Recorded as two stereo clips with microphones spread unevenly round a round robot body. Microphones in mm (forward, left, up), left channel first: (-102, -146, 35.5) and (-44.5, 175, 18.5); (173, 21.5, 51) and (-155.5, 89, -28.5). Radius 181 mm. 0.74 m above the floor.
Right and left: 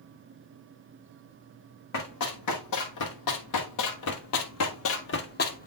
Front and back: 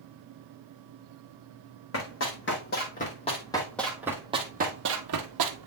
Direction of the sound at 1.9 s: 55° right.